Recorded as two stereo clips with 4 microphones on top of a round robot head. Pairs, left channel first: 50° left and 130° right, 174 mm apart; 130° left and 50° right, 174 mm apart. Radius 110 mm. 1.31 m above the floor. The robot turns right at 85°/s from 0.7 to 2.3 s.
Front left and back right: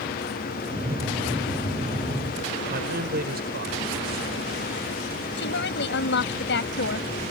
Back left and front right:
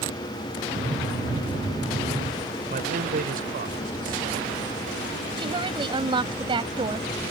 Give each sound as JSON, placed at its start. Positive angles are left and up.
{"t": 2.7, "sound": "a man speaking", "azimuth_deg": -90}
{"t": 5.4, "sound": "a woman speaking", "azimuth_deg": 20}